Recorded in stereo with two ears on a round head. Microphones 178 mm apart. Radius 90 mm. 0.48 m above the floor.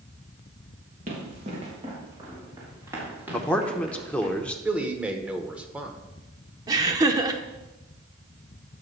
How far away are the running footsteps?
About 4.5 m.